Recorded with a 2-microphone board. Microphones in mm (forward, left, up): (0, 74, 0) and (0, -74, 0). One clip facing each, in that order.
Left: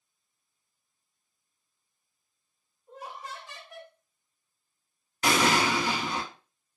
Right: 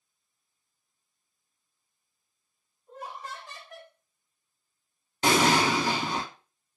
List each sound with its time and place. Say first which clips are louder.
2.9 s laughter: right 1 dB; 5° left (ahead or behind), 0.9 m
5.2 s an explosion: right 2 dB; 30° right (ahead or behind), 0.5 m